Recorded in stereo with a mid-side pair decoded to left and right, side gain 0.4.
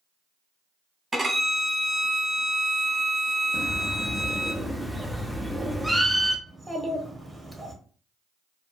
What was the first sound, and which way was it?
A violin, 25° right.